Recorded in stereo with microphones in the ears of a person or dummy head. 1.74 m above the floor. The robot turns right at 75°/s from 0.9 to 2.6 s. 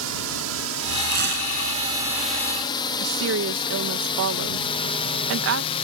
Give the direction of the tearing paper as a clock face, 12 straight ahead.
4 o'clock.